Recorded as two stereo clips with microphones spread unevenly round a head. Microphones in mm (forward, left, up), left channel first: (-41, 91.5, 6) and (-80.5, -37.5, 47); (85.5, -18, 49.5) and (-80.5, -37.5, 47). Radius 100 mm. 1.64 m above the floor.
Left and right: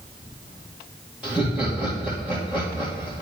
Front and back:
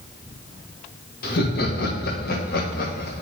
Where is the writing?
I don't hear writing.